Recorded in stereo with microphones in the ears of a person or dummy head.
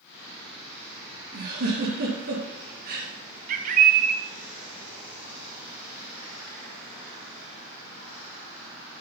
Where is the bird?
45° right (ahead or behind), 1.3 m.